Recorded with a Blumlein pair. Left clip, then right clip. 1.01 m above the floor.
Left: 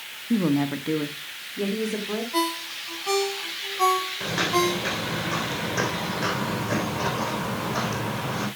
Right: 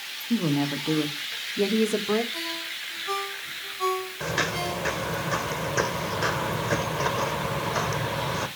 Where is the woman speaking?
15° left, 1.5 m; by 2.2 s 20° right, 2.5 m.